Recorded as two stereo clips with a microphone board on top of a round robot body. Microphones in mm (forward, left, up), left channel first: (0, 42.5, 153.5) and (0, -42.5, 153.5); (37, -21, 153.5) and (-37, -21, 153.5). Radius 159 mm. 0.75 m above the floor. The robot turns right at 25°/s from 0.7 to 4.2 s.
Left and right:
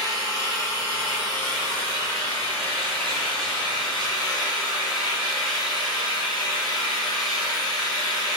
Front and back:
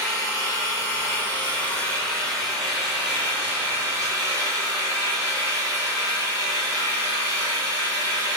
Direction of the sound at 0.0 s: 45° left.